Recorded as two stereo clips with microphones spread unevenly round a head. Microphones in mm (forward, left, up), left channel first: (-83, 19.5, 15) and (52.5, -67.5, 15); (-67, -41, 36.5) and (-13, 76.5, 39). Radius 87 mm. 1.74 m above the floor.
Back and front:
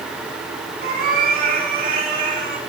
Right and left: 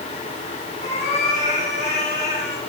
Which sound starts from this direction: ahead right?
A cat meowing, at 0.8 s.